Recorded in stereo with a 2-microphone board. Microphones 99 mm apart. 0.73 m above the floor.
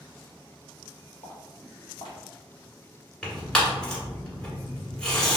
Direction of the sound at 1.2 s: 40° left (ahead or behind).